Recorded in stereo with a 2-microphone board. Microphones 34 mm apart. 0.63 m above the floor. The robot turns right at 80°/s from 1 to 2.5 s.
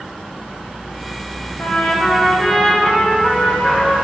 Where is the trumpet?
95° left, 1.0 m; by 4.0 s 170° left, 1.0 m.